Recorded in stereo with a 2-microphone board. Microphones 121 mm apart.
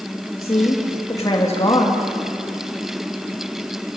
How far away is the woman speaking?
About 2.5 m.